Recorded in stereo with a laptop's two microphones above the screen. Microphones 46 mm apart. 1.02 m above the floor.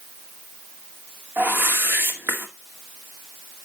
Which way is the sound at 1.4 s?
50° right (ahead or behind).